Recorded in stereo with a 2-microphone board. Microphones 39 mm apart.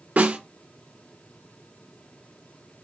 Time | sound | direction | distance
0.2 | a snare drum | 45° right (ahead or behind) | 3 m